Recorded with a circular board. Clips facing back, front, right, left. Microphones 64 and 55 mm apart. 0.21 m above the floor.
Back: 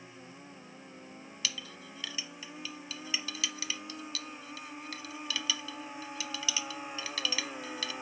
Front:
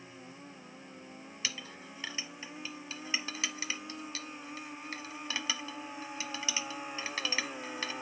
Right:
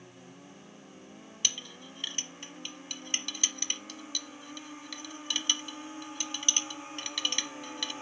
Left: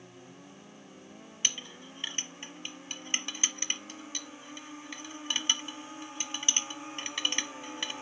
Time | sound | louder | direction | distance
1.4 | a clink | back 1 dB, left 1 dB | 40° left | 0.9 m